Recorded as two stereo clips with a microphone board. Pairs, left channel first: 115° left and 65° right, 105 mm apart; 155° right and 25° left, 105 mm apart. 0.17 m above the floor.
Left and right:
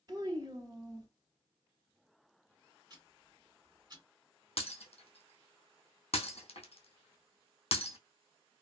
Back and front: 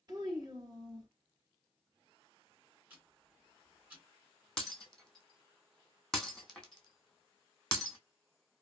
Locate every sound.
0.1 s a child speaking: 25° right, 1.6 m
2.9 s ticking: 45° right, 2 m
4.6 s breaking glass: 120° left, 0.8 m